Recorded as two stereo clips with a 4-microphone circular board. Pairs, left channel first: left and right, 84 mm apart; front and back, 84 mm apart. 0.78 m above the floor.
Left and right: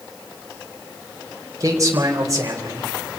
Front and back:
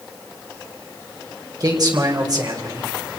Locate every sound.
1.6 s a man speaking: 140° right, 4 m